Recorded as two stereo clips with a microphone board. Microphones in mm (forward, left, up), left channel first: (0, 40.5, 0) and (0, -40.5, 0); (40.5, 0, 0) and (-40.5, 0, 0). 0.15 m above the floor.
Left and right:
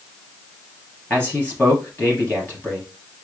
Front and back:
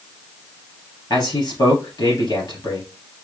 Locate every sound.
1.1 s a man speaking: 20° left, 2.5 m